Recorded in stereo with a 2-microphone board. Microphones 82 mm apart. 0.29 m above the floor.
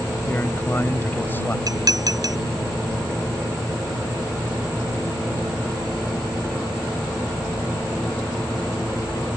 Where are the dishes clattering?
50° right (ahead or behind).